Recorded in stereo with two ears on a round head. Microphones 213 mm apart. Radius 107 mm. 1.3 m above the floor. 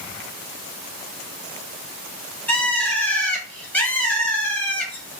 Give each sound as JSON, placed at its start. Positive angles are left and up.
{"t": 2.5, "sound": "a bird", "side_deg": 5, "distance_m": 1.0}